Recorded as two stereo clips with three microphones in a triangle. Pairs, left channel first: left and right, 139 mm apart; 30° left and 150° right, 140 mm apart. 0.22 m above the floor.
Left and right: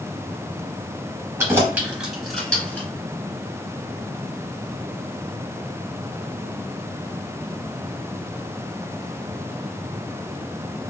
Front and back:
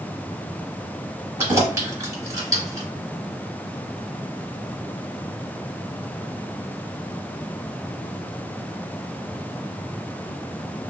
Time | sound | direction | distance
1.4 | keys jangling | 115° right | 1.0 m